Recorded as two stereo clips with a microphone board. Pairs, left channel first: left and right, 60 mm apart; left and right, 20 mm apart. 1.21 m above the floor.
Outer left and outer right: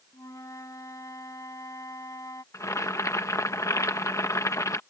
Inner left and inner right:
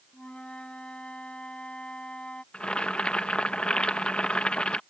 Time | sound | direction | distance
0.1 | a flute | 60° left (ahead or behind) | ?
2.5 | boiling | 55° left (ahead or behind) | ?